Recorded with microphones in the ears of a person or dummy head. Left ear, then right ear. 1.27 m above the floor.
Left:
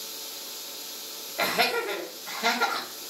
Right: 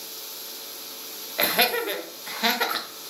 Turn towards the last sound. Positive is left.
turn(degrees=-25)  # may be behind; listen again after turning